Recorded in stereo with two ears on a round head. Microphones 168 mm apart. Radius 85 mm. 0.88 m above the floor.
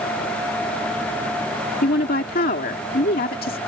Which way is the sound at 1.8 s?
50° left (ahead or behind).